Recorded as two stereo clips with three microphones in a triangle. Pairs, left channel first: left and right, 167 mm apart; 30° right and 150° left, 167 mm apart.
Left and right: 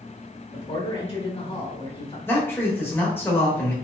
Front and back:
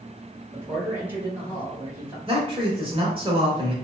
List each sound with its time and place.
0.5 s a man speaking: 85° left, 1.2 m
2.3 s a man speaking: 155° left, 0.9 m